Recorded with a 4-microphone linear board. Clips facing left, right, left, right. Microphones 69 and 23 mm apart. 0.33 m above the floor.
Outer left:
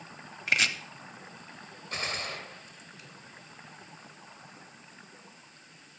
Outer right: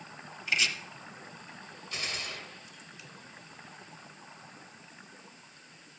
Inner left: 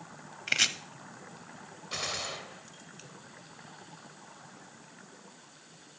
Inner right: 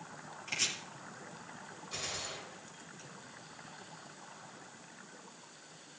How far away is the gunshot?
About 0.9 m.